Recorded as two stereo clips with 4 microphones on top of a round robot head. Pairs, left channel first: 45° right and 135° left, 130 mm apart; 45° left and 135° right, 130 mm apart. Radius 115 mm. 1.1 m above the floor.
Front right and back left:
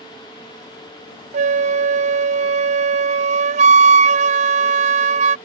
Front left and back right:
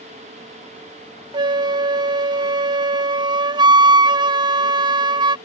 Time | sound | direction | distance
1.3 | a flute | 170° left | ?